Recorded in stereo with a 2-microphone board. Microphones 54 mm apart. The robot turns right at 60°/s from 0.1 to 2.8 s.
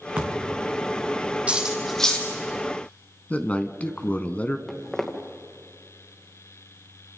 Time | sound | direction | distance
0.2 | a thud | 140° right | 3.5 m
1.5 | cutlery clinking | 25° right (ahead or behind) | 3.5 m
3.3 | a man speaking | 30° left (ahead or behind) | 1.1 m
4.7 | footsteps | 10° left (ahead or behind) | 2.5 m